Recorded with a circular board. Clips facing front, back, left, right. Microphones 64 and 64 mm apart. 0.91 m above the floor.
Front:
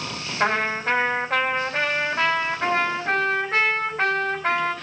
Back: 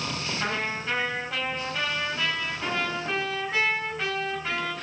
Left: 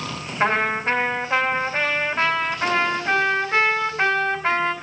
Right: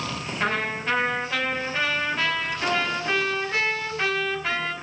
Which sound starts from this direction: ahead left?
A trumpet, at 0.4 s.